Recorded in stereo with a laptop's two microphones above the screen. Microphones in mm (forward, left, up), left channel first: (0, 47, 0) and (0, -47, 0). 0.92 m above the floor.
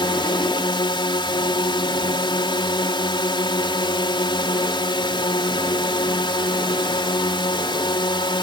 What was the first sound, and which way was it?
A drone, 60° left (ahead or behind).